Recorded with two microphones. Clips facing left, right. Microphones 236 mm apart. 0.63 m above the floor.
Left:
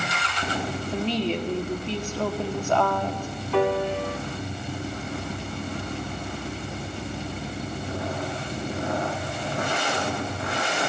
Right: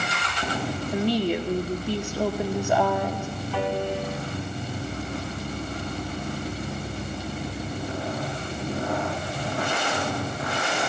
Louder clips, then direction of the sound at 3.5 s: Left 5 dB; 65° left (ahead or behind).